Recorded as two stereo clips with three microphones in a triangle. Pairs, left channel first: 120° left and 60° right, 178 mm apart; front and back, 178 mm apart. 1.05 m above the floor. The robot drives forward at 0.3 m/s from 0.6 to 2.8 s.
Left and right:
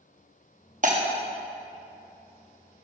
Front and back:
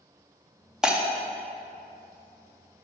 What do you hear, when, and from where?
0.8 s breaking glass: 95° right, 0.8 m